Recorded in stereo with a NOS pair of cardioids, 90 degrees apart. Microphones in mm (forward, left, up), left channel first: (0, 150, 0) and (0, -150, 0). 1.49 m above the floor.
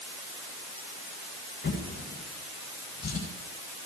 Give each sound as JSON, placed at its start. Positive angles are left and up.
{"t": 1.6, "sound": "a drawer", "azimuth_deg": 35, "distance_m": 8.5}